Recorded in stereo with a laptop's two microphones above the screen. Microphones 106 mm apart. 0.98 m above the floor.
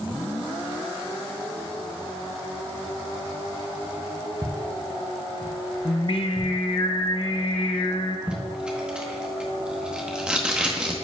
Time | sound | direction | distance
4.4 | footsteps | 35° right (ahead or behind) | 1.5 m
5.8 | singing | 55° left (ahead or behind) | 0.6 m
8.3 | tape being pulled | 10° right (ahead or behind) | 1.1 m